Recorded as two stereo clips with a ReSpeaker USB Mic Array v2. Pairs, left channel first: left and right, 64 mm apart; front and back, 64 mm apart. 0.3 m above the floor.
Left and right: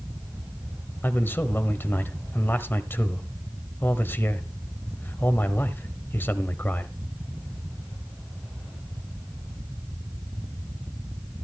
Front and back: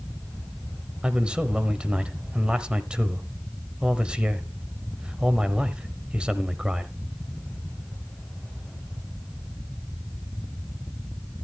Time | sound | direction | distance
1.0 | a man speaking | 115° left | 1.0 m